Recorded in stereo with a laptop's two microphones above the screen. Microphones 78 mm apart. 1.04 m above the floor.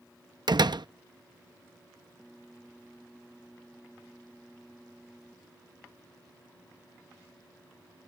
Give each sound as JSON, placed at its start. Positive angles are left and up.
{"t": 0.5, "sound": "a door slam", "side_deg": -65}